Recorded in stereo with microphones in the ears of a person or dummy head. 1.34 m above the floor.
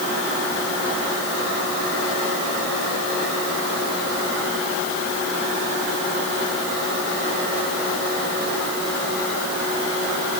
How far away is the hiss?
No hiss in this recording.